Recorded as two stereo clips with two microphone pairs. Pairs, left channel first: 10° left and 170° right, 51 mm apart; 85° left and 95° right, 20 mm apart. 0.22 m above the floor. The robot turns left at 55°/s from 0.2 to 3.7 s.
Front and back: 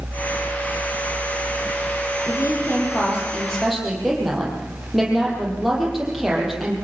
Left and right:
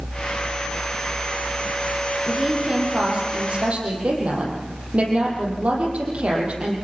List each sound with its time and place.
2.3 s a woman speaking: 5° right, 8.5 m; by 6.8 s 85° right, 8.5 m